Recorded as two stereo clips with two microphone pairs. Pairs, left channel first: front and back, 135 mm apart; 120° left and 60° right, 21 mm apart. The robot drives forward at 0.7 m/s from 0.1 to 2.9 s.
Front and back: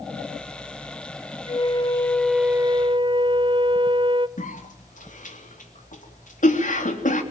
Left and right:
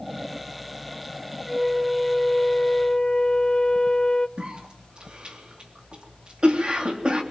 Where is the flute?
25° left, 0.8 m; by 4.3 s 145° left, 0.7 m.